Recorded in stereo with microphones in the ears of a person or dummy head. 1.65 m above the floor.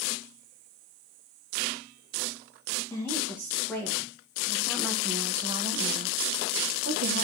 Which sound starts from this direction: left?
A woman speaking, at 2.9 s.